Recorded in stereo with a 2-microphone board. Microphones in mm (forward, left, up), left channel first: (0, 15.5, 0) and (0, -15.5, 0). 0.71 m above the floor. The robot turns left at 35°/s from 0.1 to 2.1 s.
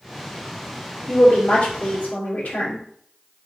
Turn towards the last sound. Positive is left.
turn(degrees=90)